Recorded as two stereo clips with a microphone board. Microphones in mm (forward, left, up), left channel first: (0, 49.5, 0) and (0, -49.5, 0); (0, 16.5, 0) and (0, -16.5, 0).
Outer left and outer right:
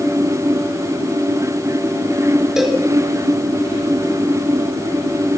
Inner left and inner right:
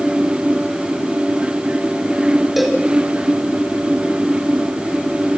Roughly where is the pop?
I don't hear a pop.